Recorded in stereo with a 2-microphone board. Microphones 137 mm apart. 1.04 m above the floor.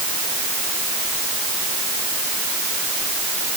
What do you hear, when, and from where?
Only background noise.